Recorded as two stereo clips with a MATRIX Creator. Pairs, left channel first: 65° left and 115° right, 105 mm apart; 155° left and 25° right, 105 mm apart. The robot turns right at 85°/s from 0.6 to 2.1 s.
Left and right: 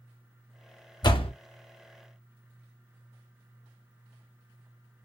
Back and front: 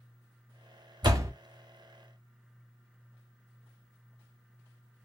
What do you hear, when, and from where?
1.0 s a door slam: 20° left, 0.8 m; by 1.3 s 45° left, 0.8 m